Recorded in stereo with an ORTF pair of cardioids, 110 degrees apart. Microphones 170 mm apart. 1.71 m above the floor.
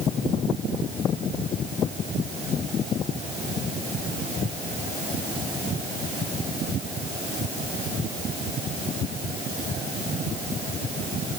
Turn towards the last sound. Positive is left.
No sound to turn to.